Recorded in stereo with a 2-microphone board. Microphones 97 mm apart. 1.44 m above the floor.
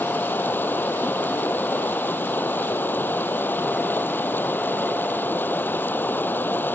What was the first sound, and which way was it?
Running water, 20° left (ahead or behind).